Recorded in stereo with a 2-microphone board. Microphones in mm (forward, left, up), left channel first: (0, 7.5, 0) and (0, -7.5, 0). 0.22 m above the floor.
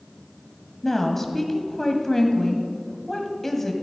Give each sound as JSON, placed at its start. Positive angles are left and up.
{"t": 0.8, "sound": "a woman speaking", "side_deg": 20, "distance_m": 1.1}